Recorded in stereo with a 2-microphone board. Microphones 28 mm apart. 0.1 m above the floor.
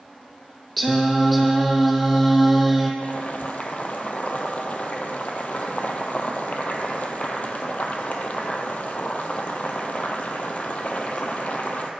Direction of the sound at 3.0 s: 55° left (ahead or behind).